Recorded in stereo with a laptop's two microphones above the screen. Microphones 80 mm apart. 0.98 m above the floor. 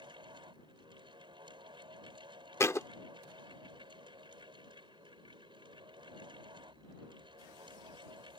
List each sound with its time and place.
0.0 s a fan: 80° right
2.6 s a thud: 35° left (ahead or behind)